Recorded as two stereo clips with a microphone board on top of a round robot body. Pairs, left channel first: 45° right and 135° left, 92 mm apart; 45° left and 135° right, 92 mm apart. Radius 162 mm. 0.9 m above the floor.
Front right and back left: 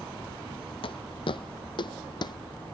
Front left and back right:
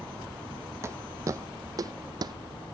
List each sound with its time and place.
0.8 s footsteps: 75° right; by 2.4 s 90° right